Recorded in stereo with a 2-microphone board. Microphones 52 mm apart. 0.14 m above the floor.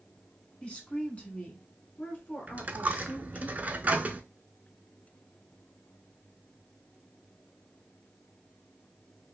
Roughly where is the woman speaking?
Left.